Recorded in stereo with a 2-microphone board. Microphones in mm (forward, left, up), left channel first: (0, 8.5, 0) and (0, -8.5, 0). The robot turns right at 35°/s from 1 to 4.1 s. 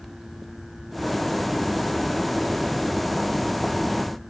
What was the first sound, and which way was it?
Only background noise.